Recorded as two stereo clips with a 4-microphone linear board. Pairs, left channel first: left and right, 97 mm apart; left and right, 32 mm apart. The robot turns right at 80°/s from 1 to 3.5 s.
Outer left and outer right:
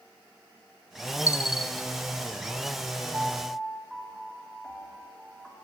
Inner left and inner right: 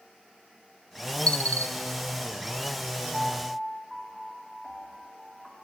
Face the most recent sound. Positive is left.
turn(degrees=0)  # may be behind; listen again after turning